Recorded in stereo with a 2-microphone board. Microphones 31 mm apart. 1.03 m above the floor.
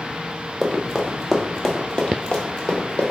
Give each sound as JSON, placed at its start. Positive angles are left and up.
{"t": 0.6, "sound": "running footsteps", "side_deg": -5, "distance_m": 1.2}